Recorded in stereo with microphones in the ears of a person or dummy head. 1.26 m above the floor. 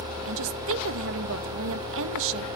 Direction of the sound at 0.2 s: 70° right (ahead or behind).